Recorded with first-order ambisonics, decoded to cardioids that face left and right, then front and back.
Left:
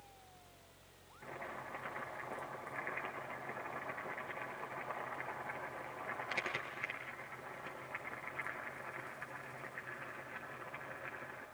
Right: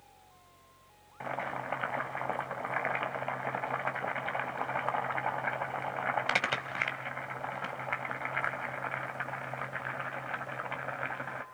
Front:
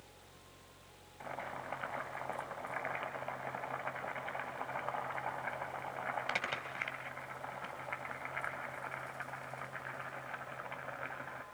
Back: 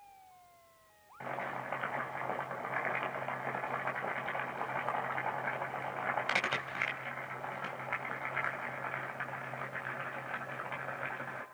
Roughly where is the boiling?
Right.